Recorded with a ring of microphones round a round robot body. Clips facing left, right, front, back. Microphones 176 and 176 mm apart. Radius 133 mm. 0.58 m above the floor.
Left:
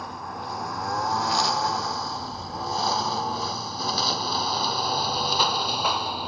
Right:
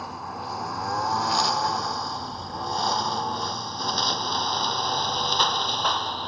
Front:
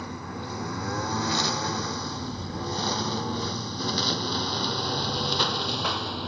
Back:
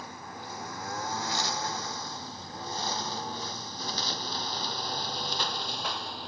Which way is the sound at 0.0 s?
Straight ahead.